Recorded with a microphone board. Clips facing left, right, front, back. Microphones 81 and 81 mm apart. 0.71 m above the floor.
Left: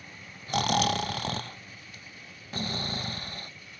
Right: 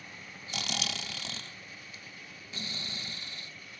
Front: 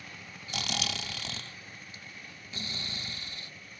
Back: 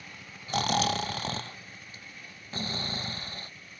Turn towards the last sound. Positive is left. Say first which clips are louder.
# left 13 dB, back 10 dB
turn(degrees=130)